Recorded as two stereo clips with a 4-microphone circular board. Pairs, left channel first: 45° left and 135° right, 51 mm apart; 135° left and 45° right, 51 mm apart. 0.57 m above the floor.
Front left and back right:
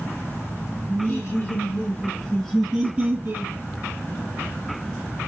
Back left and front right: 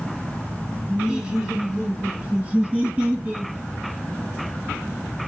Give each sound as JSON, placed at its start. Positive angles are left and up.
{"t": 0.9, "sound": "laughter", "azimuth_deg": 35, "distance_m": 2.0}